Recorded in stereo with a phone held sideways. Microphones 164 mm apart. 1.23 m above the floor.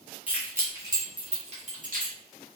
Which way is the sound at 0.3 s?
10° right (ahead or behind).